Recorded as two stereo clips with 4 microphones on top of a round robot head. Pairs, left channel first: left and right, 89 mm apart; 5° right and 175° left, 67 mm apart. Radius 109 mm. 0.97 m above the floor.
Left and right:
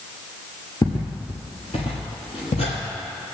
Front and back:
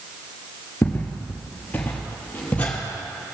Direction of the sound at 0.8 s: 40° left.